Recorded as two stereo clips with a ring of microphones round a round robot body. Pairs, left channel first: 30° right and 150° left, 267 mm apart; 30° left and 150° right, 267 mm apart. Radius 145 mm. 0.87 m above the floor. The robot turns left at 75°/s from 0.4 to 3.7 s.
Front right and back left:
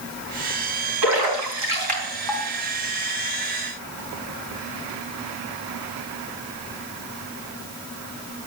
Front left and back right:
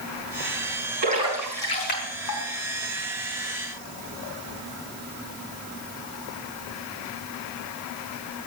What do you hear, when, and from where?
1.0 s a splash: 155° left, 4 m; by 2.4 s 50° left, 4 m